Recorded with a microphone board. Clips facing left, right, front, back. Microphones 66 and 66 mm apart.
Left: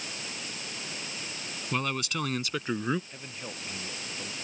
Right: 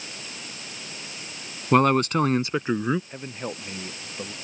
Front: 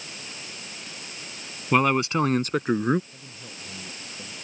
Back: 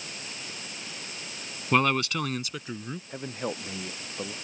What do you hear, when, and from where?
1.7 s a man speaking: 80° right; by 3.0 s 10° right
3.1 s a man speaking: 145° right